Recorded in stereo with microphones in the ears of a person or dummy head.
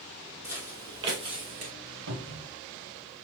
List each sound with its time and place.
0.4 s footsteps: 20° right (ahead or behind), 2 m; by 1.7 s 35° right (ahead or behind), 1.6 m
2.1 s a cupboard door: 65° right (ahead or behind), 1.8 m